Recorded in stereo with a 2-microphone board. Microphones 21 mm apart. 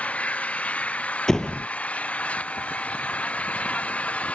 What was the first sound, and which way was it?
An engine running, 70° left (ahead or behind).